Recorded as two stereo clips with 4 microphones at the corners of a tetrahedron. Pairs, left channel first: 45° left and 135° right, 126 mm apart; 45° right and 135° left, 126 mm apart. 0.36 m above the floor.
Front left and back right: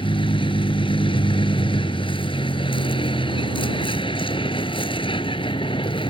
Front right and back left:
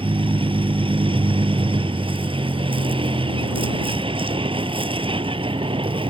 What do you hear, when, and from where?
0.0 s a vehicle: 90° left